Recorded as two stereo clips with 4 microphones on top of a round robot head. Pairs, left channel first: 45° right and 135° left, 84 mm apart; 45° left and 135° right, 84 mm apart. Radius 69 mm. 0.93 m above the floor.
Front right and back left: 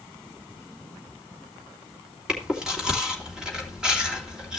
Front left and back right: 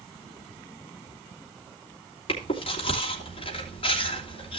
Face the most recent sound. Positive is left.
turn(degrees=55)